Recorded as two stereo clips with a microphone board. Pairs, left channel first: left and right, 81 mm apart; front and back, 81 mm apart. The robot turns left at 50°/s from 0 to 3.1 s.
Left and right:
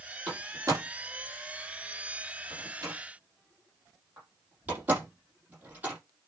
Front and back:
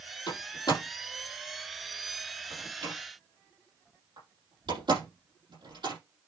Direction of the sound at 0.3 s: 15° right.